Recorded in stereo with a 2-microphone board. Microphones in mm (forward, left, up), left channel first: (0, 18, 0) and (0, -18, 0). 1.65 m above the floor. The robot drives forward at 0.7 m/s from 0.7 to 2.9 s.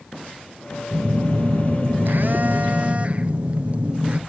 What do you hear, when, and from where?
0.9 s a phone buzzing: 45° right (ahead or behind), 0.8 m; by 4.2 s 35° right (ahead or behind), 1.0 m